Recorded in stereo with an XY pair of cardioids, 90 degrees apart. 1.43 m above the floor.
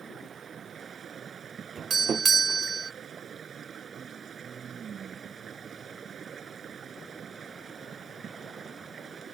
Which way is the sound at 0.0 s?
55° right.